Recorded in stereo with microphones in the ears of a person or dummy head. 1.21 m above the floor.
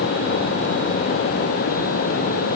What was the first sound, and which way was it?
Only background noise.